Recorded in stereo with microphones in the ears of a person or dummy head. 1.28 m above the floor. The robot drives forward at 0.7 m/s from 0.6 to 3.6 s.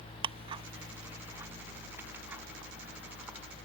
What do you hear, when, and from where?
0.2 s ticking: 25° right (ahead or behind); by 3.4 s 10° right (ahead or behind)